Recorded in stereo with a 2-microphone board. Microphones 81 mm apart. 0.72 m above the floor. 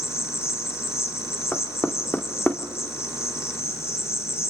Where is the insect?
35° left (ahead or behind), 3 m.